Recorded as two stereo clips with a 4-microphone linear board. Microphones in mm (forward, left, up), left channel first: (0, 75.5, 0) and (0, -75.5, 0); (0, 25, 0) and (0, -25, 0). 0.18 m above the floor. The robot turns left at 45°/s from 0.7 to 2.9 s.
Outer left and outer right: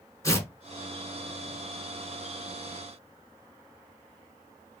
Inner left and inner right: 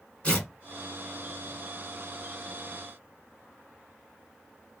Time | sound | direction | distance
0.2 | tearing paper | 20° left (ahead or behind) | 2.5 m